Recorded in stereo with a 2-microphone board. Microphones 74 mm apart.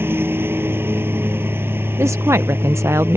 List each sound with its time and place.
0.0 s a lawn mower: 30° right (ahead or behind)
2.0 s a woman speaking: 40° right (ahead or behind)